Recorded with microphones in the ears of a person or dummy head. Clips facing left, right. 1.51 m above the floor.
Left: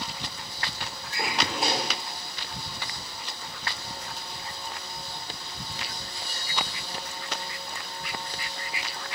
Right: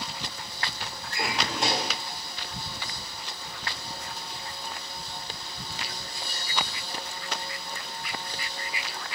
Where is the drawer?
5° left (ahead or behind), 2.0 m.